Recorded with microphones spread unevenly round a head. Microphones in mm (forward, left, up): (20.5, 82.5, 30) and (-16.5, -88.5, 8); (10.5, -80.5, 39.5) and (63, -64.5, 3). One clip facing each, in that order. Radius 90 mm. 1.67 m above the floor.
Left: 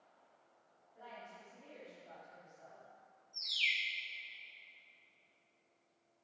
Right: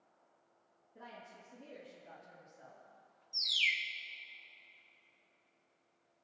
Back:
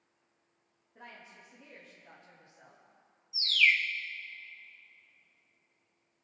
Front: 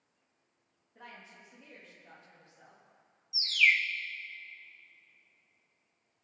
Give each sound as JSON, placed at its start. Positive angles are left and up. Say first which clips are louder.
{"t": 0.9, "sound": "a woman speaking", "louder": "even, even", "azimuth_deg": -85, "distance_m": 3.5}
{"t": 3.3, "sound": "a bird", "louder": "right 3 dB, even", "azimuth_deg": -65, "distance_m": 0.9}